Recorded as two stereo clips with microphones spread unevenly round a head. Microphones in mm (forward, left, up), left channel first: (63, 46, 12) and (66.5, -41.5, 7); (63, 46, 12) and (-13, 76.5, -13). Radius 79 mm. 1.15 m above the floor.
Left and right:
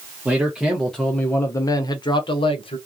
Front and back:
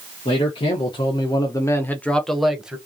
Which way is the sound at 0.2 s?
10° right.